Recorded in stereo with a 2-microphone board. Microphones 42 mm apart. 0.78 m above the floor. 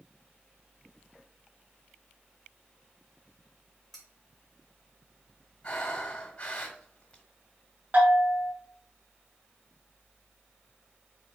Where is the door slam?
No door slam in this recording.